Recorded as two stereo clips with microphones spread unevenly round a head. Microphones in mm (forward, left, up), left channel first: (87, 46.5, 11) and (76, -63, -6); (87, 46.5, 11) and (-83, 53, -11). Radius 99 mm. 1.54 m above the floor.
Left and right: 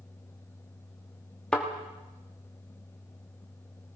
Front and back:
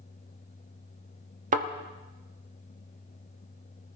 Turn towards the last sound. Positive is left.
turn(degrees=155)